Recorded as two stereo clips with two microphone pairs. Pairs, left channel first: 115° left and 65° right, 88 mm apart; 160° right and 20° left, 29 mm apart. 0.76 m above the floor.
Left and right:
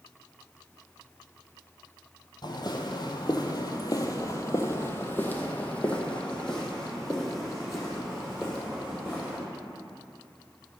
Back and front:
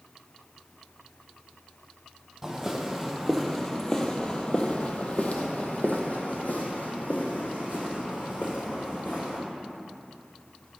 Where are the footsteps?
100° left, 1.3 m; by 9.4 s 145° right, 3 m.